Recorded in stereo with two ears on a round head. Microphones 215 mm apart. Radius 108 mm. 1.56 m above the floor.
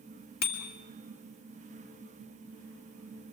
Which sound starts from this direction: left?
A bicycle bell, at 0.4 s.